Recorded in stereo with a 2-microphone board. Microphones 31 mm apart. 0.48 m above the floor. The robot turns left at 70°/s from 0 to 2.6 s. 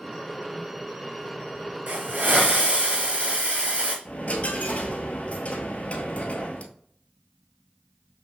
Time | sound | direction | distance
1.9 | a hiss | 85° right | 2.5 m
4.0 | a dropped coin | 45° left (ahead or behind) | 1.0 m